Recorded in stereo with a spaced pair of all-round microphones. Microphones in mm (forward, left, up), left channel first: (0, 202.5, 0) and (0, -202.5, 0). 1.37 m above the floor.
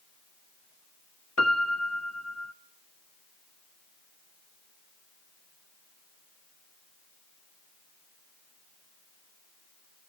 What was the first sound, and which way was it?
A piano, 40° left (ahead or behind).